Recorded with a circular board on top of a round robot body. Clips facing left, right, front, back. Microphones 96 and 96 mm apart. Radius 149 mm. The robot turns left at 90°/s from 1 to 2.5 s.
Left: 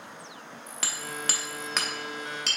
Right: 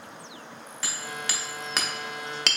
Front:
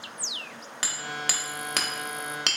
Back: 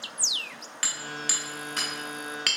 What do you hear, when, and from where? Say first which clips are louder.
0.8 s hammering: even, front 2 dB; 65° left, 0.7 m; by 2.6 s 70° right, 0.7 m